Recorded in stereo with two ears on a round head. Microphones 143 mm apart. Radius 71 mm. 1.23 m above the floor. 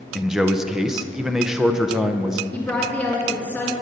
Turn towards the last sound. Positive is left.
turn(degrees=10)  # may be behind; listen again after turning